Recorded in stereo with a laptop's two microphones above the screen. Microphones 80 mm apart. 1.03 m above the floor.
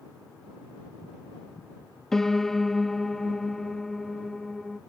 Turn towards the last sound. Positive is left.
turn(degrees=5)  # may be behind; listen again after turning